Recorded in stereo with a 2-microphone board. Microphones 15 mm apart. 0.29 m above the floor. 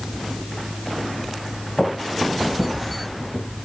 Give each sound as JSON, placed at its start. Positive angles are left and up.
{"t": 1.8, "sound": "footsteps", "side_deg": 5, "distance_m": 2.0}